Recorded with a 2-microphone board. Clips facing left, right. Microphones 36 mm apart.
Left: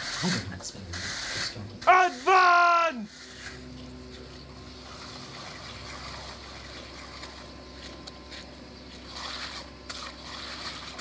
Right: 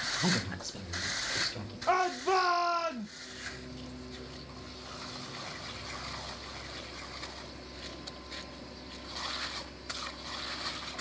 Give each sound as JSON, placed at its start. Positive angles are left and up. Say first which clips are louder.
{"t": 0.2, "sound": "a woman speaking", "louder": "left 1 dB", "side_deg": 5, "distance_m": 0.6}
{"t": 1.9, "sound": "a shout", "louder": "left 9 dB", "side_deg": 70, "distance_m": 0.7}